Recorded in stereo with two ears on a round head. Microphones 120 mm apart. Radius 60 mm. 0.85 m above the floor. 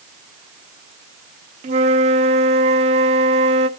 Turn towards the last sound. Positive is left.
turn(degrees=-55)  # may be behind; listen again after turning